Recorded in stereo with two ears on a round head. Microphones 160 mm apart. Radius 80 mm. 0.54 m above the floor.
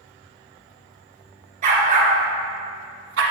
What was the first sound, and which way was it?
A dog barking, 45° right (ahead or behind).